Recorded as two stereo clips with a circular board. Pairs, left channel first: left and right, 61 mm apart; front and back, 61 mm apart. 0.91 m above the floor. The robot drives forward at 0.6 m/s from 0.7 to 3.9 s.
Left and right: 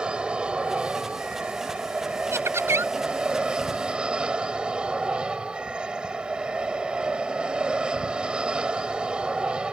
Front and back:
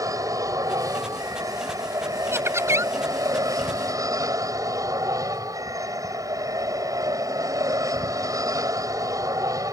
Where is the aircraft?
165° right.